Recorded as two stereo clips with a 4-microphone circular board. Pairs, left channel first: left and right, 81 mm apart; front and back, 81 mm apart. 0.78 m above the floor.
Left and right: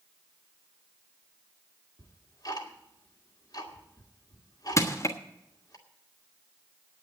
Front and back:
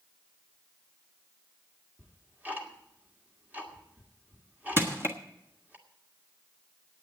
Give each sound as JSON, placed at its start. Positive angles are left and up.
{"t": 2.0, "sound": "ticking", "azimuth_deg": 115, "distance_m": 1.7}
{"t": 4.8, "sound": "crushing", "azimuth_deg": 130, "distance_m": 1.3}